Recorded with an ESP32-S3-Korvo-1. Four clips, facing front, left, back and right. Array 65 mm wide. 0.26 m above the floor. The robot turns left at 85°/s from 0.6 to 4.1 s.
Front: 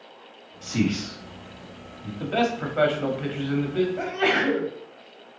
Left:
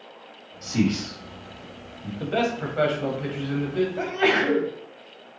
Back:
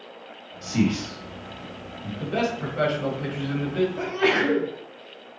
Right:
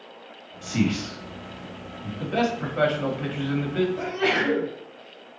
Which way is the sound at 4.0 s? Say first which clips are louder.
Left 2 dB, back 1 dB; 60° left.